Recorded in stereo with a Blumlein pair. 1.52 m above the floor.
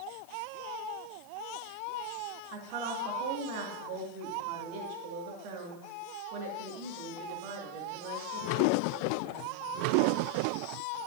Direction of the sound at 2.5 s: 40° right.